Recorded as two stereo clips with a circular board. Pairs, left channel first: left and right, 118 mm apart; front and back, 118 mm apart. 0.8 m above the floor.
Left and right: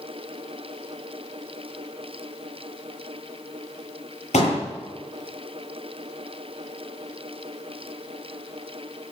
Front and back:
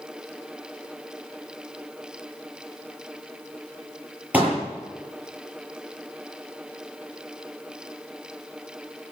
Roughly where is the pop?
Left.